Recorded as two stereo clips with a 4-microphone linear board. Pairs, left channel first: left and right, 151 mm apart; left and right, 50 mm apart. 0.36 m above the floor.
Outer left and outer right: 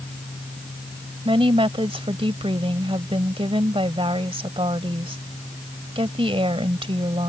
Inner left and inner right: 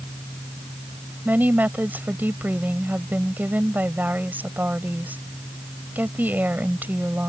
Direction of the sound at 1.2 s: 40° right (ahead or behind).